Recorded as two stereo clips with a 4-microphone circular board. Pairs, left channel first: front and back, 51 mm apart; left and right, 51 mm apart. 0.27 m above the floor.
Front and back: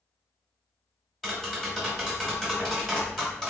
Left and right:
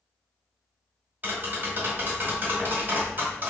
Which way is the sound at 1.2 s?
80° right.